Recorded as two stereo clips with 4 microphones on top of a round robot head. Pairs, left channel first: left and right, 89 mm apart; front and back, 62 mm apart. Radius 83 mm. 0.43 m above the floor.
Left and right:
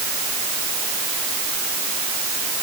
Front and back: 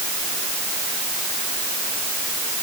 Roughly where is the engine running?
No engine running in this recording.